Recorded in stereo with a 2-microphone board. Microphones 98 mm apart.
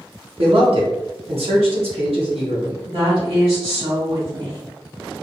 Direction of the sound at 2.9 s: 70° right (ahead or behind).